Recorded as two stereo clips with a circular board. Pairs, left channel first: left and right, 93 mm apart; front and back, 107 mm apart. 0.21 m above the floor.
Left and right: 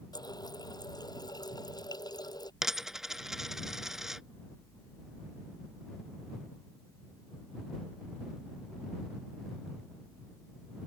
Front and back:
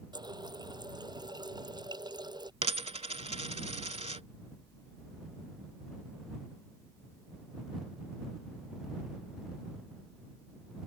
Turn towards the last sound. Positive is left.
turn(degrees=-175)